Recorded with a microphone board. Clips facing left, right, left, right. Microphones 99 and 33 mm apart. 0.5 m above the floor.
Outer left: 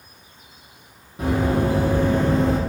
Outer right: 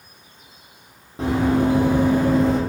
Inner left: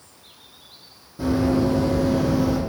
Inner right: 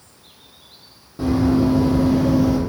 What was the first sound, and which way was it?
Running footsteps, 30° right (ahead or behind).